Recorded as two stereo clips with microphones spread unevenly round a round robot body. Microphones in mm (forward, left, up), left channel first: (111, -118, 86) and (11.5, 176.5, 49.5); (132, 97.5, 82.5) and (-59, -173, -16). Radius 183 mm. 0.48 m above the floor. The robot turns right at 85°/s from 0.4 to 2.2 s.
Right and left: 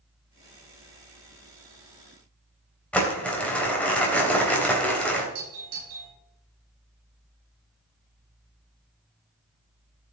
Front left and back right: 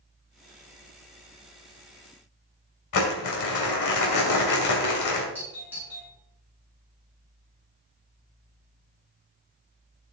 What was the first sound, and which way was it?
Crumpling, 15° left.